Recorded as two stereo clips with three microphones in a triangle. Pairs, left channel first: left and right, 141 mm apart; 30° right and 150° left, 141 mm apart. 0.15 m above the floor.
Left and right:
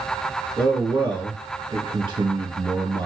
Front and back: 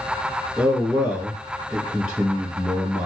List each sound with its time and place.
0.6 s a man speaking: 125° right, 2.5 m